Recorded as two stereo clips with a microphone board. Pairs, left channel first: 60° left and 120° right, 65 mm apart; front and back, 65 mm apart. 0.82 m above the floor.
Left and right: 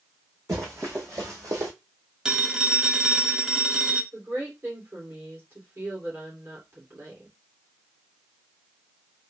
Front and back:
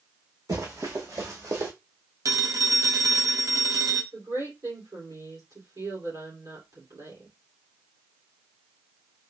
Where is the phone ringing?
160° left, 0.7 m.